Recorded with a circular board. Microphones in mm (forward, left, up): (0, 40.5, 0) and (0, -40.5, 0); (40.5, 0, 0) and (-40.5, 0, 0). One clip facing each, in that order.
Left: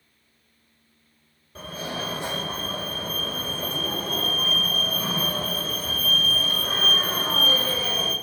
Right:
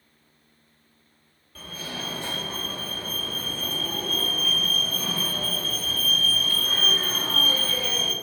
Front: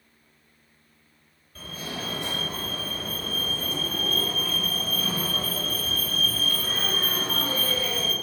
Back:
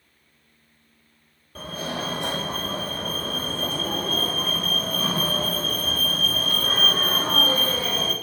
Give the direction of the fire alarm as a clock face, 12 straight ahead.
7 o'clock.